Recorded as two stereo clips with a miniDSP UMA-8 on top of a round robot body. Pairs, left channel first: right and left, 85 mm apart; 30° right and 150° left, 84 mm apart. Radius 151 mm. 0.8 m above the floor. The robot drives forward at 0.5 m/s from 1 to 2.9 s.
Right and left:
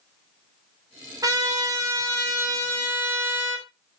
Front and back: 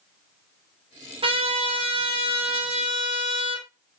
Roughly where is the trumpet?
Behind left.